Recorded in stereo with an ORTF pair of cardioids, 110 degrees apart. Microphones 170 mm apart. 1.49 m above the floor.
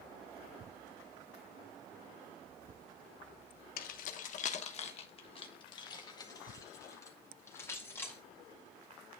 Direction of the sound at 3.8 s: 65° left.